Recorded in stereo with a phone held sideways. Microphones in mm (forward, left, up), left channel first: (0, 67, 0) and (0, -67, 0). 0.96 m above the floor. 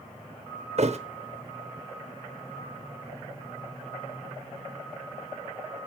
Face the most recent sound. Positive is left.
turn(degrees=-55)  # may be behind; listen again after turning